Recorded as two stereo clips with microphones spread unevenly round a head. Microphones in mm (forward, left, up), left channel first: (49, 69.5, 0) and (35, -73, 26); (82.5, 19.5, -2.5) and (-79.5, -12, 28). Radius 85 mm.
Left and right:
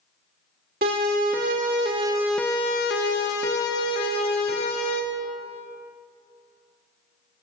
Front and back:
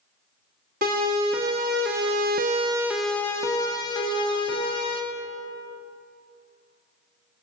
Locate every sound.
0.8 s a siren: 130° right, 2.5 m; by 5.0 s 70° left, 3.5 m